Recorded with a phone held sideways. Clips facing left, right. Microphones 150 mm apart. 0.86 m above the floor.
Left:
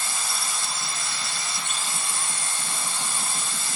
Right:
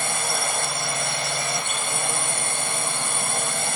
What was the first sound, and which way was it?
A drone, 60° right (ahead or behind).